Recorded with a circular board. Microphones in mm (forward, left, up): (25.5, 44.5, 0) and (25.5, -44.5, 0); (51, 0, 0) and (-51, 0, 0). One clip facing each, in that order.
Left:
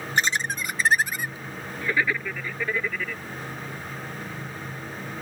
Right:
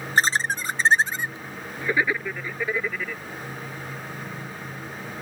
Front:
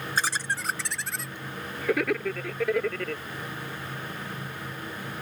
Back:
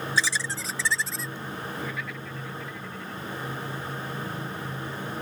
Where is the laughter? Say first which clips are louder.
Right 3 dB, front 1 dB; 35° right; by 3.2 s 5° right.